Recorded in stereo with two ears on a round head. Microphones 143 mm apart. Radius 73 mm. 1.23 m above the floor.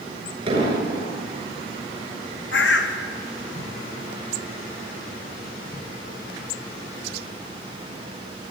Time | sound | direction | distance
0.5 | an explosion | 35° right (ahead or behind) | 6.5 m
2.5 | a bird | 75° left (ahead or behind) | 1.3 m